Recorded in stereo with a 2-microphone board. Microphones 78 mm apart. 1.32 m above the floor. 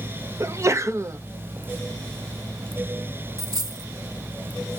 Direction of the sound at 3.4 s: 45° right (ahead or behind).